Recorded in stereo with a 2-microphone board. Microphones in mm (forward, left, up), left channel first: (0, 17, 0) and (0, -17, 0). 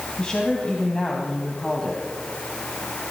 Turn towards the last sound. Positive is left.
turn(degrees=30)  # may be behind; listen again after turning